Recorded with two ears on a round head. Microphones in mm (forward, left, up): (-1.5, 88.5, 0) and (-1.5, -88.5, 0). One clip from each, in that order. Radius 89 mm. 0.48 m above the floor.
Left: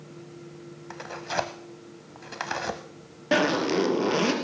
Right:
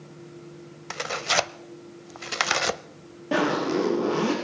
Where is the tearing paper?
65° right (ahead or behind), 0.5 m.